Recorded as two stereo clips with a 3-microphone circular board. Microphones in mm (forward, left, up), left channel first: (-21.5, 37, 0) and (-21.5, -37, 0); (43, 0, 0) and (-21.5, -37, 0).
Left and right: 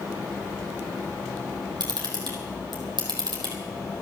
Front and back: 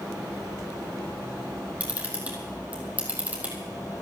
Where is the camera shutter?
80° right, 4 m.